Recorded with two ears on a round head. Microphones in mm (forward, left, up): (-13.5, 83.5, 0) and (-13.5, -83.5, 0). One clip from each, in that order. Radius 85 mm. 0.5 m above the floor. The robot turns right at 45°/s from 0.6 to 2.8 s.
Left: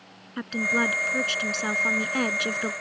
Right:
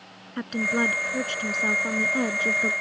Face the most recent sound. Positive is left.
turn(degrees=110)